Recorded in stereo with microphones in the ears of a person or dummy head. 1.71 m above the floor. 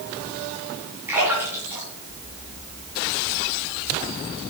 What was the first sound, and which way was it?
A splash, 10° right (ahead or behind).